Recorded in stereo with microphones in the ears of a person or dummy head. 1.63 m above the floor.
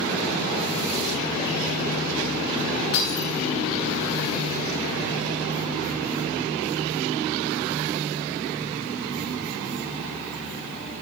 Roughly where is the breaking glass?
Left.